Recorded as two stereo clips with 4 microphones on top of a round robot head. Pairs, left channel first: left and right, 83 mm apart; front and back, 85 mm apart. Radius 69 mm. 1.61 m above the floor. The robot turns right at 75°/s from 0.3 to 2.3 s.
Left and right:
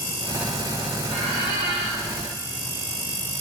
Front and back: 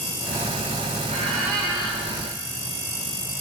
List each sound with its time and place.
1.1 s a squeak: 140° right, 4 m; by 2.0 s 70° right, 4 m